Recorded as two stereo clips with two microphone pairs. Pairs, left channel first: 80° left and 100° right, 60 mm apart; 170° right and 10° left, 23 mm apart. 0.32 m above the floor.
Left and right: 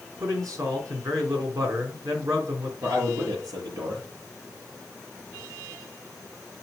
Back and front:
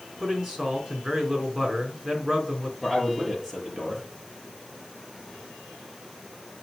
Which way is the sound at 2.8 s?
80° right.